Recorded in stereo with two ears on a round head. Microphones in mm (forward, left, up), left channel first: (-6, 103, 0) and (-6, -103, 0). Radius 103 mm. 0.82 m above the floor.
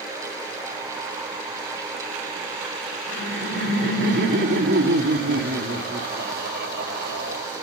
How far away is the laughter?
About 2.5 m.